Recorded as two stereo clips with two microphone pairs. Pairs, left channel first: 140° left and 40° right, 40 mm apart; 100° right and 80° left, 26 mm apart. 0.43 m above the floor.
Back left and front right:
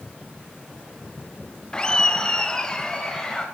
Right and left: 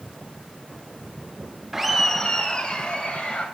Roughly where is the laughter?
Behind left.